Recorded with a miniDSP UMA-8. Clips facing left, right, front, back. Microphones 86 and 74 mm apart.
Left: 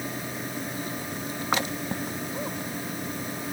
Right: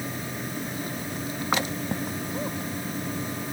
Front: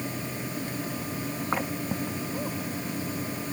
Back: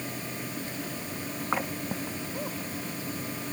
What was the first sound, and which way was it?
Only background noise.